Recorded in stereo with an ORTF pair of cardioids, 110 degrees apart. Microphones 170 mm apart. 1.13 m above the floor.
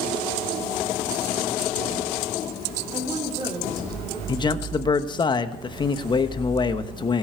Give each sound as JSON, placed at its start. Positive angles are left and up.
{"t": 2.9, "sound": "a woman speaking", "azimuth_deg": -20, "distance_m": 3.5}
{"t": 4.3, "sound": "a man speaking", "azimuth_deg": 25, "distance_m": 1.1}